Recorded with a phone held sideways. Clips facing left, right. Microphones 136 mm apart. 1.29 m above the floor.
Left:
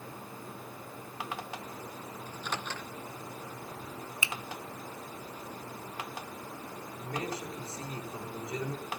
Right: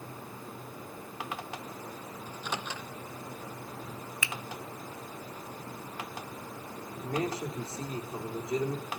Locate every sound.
2.3 s a microwave: 10° right (ahead or behind), 1.3 m
4.2 s a finger snap: 20° left (ahead or behind), 1.3 m
7.0 s a man speaking: 30° right (ahead or behind), 4 m